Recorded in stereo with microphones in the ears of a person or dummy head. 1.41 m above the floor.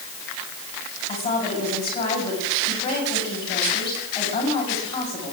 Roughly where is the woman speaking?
Left.